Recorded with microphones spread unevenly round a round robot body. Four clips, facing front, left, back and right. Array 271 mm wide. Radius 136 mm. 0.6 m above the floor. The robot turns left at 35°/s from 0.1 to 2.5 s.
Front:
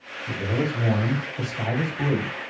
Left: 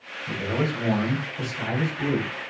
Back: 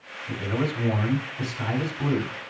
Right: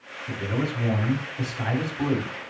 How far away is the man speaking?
About 4 m.